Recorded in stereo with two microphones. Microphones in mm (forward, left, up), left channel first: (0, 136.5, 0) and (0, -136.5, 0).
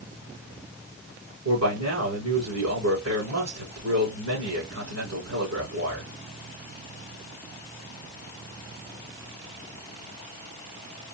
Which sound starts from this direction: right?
A man speaking, at 1.4 s.